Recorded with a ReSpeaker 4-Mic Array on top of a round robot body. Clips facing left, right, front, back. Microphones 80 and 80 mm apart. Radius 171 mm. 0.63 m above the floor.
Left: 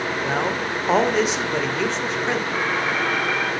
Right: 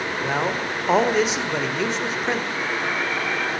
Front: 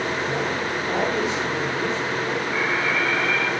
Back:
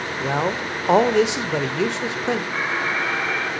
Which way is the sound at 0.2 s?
175° right.